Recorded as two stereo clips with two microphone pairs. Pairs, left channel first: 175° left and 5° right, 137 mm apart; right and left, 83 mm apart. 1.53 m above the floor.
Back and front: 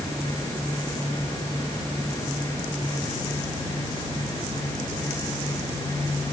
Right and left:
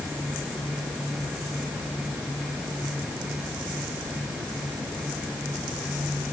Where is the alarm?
I don't hear an alarm.